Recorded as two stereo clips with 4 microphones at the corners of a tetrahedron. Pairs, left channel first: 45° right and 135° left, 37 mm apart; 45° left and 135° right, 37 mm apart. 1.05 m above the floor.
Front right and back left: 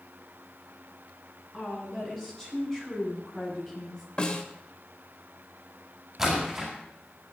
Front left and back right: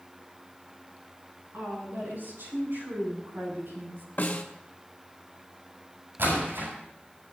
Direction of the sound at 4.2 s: 15° left.